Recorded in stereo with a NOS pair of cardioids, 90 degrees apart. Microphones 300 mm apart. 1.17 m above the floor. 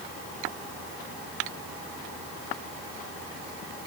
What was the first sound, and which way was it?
Only background noise.